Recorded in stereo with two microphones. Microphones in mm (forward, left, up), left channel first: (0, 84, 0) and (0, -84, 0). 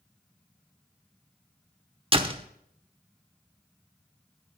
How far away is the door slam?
About 1.0 m.